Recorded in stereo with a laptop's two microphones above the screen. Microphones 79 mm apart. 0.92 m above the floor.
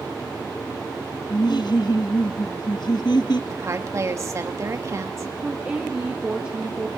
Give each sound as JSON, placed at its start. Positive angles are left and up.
{"t": 1.3, "sound": "laughter", "side_deg": 65, "distance_m": 0.9}
{"t": 3.5, "sound": "a woman speaking", "side_deg": -40, "distance_m": 1.3}
{"t": 5.4, "sound": "a woman speaking", "side_deg": -15, "distance_m": 1.4}